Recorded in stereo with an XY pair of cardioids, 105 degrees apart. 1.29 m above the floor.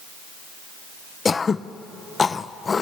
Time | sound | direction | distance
1.2 | throat clearing | 35° left | 0.6 m